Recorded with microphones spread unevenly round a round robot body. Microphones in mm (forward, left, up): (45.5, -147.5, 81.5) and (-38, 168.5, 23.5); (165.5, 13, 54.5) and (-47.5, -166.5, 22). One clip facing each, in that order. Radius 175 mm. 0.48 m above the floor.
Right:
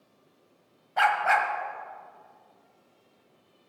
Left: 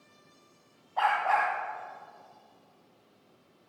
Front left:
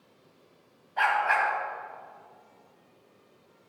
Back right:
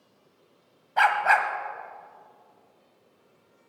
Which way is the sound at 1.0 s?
120° right.